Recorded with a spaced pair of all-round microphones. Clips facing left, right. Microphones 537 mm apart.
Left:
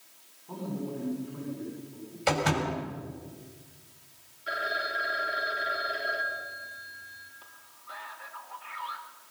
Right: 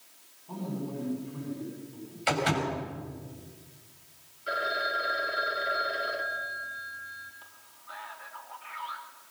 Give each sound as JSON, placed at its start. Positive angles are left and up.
{"t": 0.5, "sound": "a man speaking", "side_deg": -5, "distance_m": 9.0}
{"t": 2.3, "sound": "a door slam", "side_deg": 60, "distance_m": 6.0}
{"t": 4.5, "sound": "a phone ringing", "side_deg": 15, "distance_m": 2.5}
{"t": 7.4, "sound": "a man speaking", "side_deg": -10, "distance_m": 3.5}